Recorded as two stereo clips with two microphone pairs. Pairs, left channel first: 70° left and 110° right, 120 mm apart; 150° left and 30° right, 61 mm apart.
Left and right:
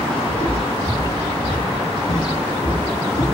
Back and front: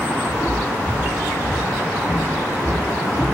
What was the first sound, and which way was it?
Footsteps, 115° left.